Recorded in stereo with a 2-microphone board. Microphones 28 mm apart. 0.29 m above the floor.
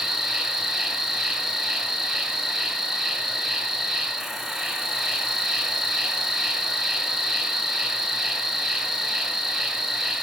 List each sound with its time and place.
0.0 s an insect: 15° right (ahead or behind), 0.8 m